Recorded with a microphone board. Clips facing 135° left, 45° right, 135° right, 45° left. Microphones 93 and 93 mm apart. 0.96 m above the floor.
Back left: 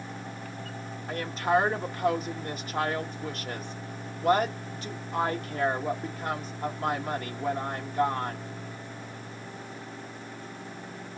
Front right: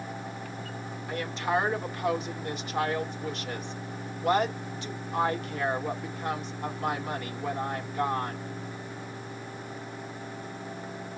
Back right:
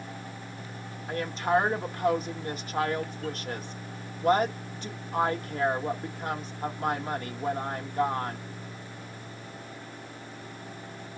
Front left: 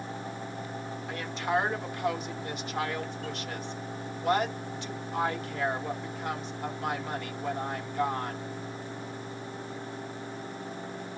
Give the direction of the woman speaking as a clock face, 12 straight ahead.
6 o'clock.